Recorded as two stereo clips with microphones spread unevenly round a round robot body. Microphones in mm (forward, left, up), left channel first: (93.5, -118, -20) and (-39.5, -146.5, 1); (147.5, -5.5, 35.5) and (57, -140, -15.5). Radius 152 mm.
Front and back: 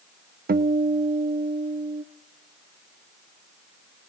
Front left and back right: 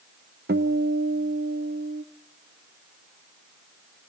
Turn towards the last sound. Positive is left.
turn(degrees=-175)